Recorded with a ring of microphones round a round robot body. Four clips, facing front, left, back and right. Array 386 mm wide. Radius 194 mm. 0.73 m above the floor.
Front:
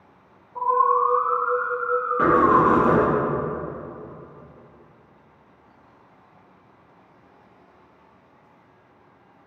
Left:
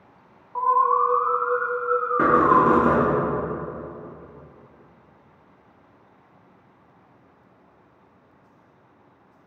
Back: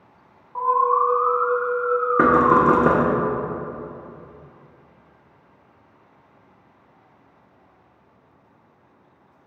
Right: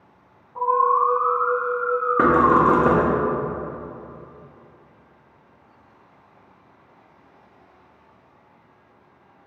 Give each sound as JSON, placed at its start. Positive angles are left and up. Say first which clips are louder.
{"t": 0.6, "sound": "an alarm", "louder": "right 1 dB, back 1 dB", "azimuth_deg": 125, "distance_m": 1.3}
{"t": 2.2, "sound": "knocking", "louder": "right 1 dB, back 1 dB", "azimuth_deg": -155, "distance_m": 0.7}